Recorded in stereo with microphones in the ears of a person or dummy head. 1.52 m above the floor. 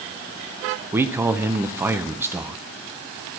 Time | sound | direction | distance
0.9 | a man speaking | 15° right (ahead or behind) | 0.6 m